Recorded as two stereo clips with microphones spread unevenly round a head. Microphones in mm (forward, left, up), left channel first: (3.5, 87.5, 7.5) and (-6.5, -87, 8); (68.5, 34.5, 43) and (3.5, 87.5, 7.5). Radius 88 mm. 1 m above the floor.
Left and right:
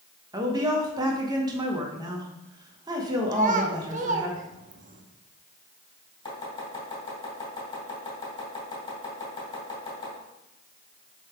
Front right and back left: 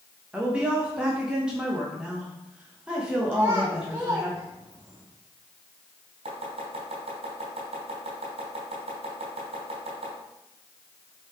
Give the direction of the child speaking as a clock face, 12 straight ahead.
5 o'clock.